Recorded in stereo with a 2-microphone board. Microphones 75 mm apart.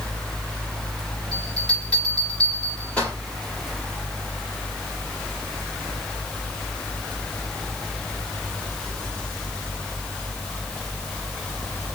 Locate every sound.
1.3 s a bell: 15° left (ahead or behind), 6 m